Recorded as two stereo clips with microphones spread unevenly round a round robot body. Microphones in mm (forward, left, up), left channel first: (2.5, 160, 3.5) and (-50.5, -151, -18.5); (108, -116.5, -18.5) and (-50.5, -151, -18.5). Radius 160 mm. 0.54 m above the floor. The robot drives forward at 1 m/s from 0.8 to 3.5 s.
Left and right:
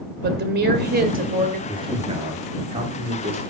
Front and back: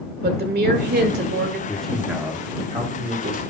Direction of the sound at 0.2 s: 155° right.